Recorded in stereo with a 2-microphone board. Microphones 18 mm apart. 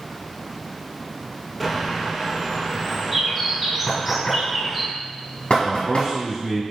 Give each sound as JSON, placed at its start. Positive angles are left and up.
{"t": 1.6, "sound": "a bird", "side_deg": -10, "distance_m": 1.1}
{"t": 3.9, "sound": "knocking", "side_deg": 55, "distance_m": 2.0}
{"t": 5.6, "sound": "a man speaking", "side_deg": -60, "distance_m": 1.9}